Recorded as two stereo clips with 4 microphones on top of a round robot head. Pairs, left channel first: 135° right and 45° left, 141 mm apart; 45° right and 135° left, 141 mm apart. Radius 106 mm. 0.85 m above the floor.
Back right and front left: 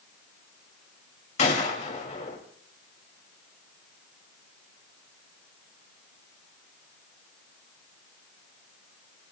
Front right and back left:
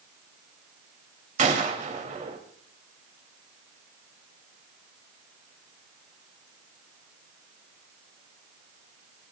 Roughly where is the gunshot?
Behind.